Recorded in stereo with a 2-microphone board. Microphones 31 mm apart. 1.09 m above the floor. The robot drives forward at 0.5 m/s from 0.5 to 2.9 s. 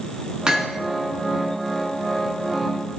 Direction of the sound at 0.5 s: 25° right (ahead or behind).